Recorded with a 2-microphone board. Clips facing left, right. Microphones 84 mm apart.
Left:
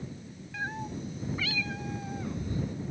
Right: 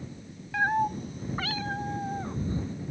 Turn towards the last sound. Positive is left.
turn(degrees=-35)  # may be behind; listen again after turning